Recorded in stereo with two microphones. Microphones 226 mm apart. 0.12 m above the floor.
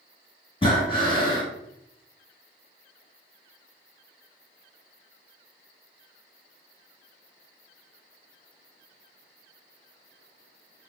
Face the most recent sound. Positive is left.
turn(degrees=25)  # may be behind; listen again after turning